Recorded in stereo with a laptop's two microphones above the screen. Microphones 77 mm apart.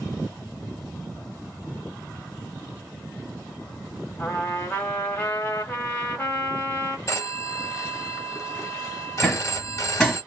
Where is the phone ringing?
40° left (ahead or behind), 1.3 m.